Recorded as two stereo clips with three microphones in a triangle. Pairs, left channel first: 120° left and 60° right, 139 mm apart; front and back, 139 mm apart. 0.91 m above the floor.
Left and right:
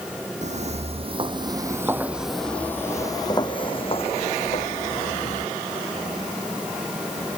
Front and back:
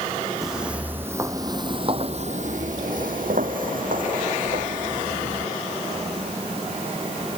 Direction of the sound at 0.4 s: 95° right.